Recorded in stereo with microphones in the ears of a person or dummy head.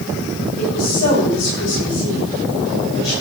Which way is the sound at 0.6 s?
50° left (ahead or behind).